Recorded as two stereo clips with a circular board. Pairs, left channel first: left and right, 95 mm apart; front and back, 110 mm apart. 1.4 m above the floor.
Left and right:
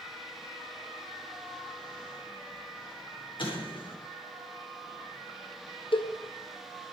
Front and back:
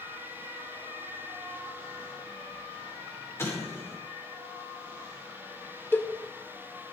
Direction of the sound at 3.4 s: 65° left.